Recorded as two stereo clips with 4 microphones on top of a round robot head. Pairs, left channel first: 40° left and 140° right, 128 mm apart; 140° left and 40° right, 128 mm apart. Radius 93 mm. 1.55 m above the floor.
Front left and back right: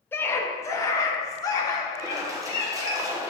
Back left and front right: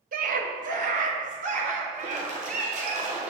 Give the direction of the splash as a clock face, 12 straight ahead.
2 o'clock.